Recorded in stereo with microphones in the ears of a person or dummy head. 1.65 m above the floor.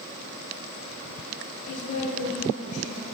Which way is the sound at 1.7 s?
45° left (ahead or behind).